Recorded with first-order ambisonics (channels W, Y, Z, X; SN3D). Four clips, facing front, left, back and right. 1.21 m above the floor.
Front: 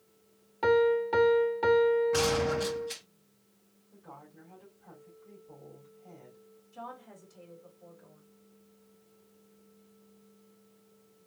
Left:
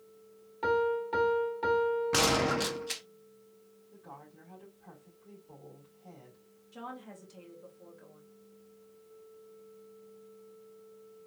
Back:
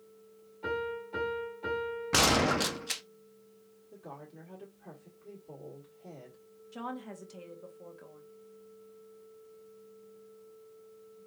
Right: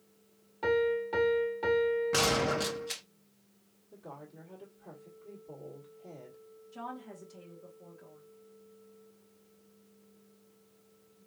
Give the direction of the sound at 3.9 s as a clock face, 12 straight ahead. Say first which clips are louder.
Right 3 dB, back 3 dB; 5 o'clock.